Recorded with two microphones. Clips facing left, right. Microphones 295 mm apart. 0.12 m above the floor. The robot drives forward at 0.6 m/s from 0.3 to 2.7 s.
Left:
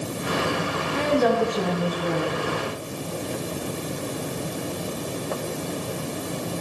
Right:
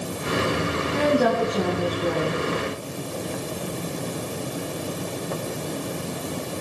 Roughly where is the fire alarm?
No fire alarm in this recording.